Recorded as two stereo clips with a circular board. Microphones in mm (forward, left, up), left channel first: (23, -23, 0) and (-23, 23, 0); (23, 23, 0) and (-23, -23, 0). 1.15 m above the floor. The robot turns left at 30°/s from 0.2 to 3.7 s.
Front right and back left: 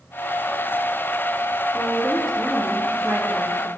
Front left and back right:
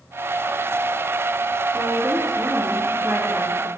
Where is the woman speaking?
125° right, 1.6 m; by 3.7 s 175° left, 1.6 m.